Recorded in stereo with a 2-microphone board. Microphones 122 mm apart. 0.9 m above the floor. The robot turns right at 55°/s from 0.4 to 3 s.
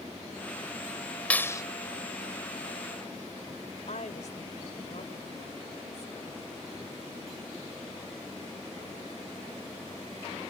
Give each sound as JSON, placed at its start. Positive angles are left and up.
{"t": 1.3, "sound": "a clap", "side_deg": 10}
{"t": 3.9, "sound": "a woman speaking", "side_deg": 75}